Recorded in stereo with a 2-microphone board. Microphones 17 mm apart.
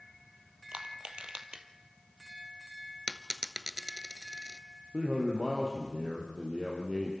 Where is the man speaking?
30° right (ahead or behind), 3.5 m.